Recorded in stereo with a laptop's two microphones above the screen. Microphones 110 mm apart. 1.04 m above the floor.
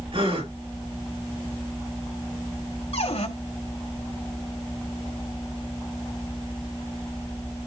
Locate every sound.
0.1 s a gasp: 60° right (ahead or behind), 4.5 m
2.9 s a cupboard door: 80° left, 2 m